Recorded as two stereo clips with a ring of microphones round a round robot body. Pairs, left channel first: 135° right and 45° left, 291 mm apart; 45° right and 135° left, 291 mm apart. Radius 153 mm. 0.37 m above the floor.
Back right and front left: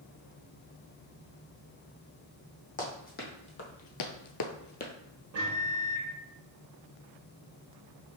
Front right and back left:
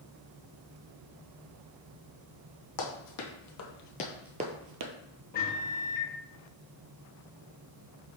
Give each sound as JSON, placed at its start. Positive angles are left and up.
{"t": 2.8, "sound": "running footsteps", "azimuth_deg": -70, "distance_m": 1.5}
{"t": 5.3, "sound": "a microwave", "azimuth_deg": 10, "distance_m": 1.1}